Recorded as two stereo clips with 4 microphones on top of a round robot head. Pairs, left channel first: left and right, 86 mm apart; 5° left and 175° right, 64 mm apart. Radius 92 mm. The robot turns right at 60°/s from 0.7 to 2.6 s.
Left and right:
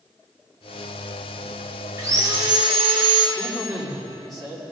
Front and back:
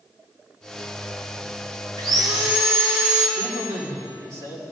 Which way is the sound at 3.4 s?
140° right.